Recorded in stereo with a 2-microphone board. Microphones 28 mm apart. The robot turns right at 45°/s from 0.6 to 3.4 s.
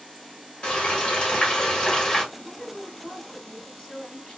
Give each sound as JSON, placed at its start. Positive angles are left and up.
{"t": 0.6, "sound": "frying", "azimuth_deg": 70, "distance_m": 1.3}
{"t": 2.3, "sound": "a woman speaking", "side_deg": 5, "distance_m": 1.5}